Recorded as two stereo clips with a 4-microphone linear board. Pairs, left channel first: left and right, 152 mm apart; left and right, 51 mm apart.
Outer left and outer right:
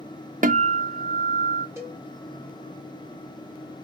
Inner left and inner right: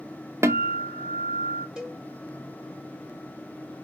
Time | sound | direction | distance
0.4 | a guitar | 55° right (ahead or behind) | 0.7 m
1.8 | a cowbell | 15° right (ahead or behind) | 1.6 m